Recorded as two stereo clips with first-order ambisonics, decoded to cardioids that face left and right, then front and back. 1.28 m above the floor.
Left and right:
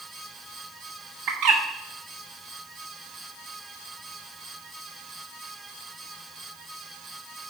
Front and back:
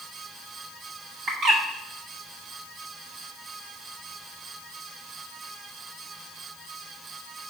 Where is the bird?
130° right, 0.9 m.